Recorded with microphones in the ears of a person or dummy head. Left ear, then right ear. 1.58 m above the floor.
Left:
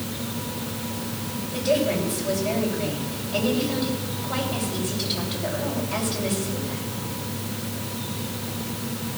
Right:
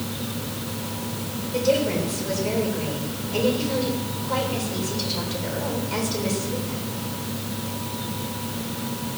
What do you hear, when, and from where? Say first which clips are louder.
1.5 s a woman speaking: right 1 dB; 85° right, 7 m